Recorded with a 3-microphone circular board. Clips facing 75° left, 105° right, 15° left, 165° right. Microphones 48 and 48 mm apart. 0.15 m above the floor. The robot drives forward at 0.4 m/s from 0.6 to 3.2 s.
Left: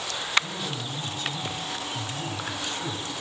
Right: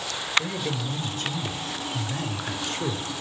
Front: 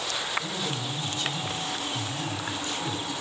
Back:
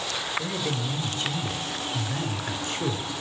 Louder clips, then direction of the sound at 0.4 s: Right 3 dB, back 2 dB; 120° right.